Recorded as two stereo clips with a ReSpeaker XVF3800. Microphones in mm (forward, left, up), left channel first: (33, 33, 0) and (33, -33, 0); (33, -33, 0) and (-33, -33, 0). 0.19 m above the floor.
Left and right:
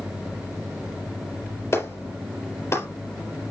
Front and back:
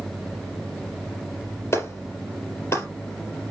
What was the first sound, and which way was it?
A clap, 40° left.